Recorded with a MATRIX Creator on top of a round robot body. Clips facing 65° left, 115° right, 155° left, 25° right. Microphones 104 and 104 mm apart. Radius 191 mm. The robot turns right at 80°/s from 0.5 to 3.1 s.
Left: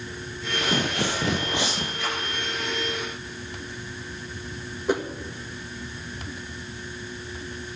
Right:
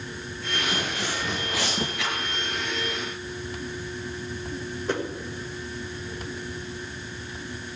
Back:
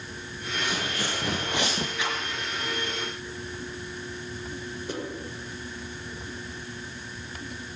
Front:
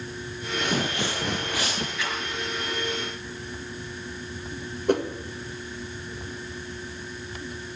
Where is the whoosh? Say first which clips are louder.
Left 3 dB, front 12 dB; 10° right, 1.8 m.